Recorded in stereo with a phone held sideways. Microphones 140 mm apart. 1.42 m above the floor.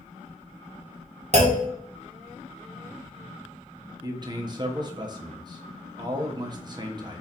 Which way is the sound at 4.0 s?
30° right (ahead or behind).